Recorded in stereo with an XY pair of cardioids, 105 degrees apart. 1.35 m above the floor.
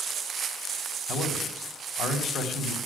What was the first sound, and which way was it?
A man speaking, 65° left.